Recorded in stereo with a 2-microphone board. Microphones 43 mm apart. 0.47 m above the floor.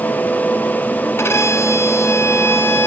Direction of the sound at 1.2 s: 75° left (ahead or behind).